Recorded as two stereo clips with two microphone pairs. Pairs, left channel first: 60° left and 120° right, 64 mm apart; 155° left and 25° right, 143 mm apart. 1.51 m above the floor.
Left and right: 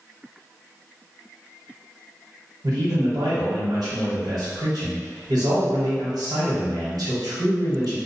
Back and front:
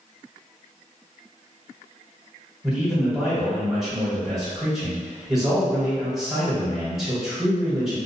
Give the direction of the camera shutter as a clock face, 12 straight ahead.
I don't hear a camera shutter.